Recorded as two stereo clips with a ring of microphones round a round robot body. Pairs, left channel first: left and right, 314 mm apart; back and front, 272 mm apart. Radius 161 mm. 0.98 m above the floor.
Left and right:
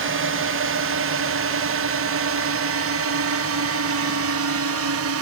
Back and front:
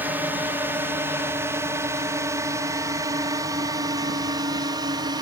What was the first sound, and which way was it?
A drone, 80° right.